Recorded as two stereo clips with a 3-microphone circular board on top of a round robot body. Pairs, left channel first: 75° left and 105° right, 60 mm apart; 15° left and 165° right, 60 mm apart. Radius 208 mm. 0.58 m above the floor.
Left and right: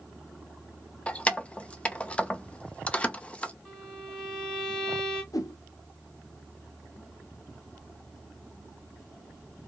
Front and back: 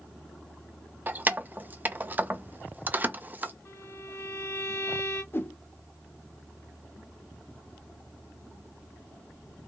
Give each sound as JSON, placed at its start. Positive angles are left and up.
{"t": 1.1, "sound": "keys jangling", "azimuth_deg": 140, "distance_m": 0.6}
{"t": 3.6, "sound": "a violin", "azimuth_deg": -5, "distance_m": 1.7}
{"t": 5.3, "sound": "a whoosh", "azimuth_deg": 70, "distance_m": 0.6}